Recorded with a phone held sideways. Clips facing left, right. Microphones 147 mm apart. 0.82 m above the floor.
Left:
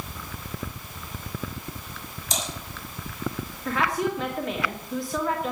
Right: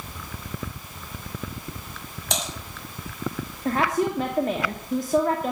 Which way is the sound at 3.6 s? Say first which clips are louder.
Right 3 dB; 45° right (ahead or behind).